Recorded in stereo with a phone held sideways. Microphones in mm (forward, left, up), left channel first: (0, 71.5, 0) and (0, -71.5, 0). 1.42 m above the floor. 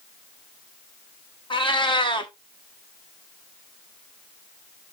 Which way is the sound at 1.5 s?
35° left (ahead or behind).